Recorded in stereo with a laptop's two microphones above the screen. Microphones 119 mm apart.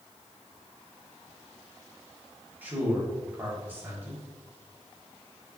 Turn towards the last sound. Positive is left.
turn(degrees=-15)  # may be behind; listen again after turning